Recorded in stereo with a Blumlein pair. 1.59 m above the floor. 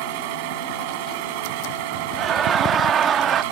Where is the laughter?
25° right.